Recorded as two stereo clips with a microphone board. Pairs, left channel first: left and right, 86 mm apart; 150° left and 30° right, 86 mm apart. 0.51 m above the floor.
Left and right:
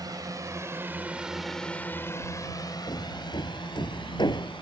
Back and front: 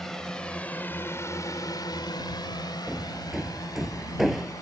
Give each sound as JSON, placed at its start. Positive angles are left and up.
{"t": 0.0, "sound": "a drone", "azimuth_deg": -125}
{"t": 2.9, "sound": "hammering", "azimuth_deg": 60}